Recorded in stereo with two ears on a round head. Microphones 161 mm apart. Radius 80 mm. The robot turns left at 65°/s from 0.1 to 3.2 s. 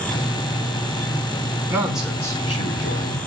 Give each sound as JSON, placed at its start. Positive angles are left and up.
{"t": 1.7, "sound": "a man speaking", "azimuth_deg": -160, "distance_m": 4.0}